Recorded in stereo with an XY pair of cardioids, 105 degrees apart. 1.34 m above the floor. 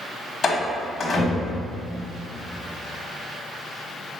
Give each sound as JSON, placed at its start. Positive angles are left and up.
{"t": 0.4, "sound": "a door slam", "azimuth_deg": 35, "distance_m": 1.1}